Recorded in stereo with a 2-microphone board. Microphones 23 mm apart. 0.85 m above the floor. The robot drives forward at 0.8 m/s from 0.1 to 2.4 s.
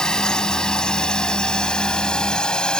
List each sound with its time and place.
0.0 s a drone: 30° left (ahead or behind); by 2.8 s 40° left (ahead or behind)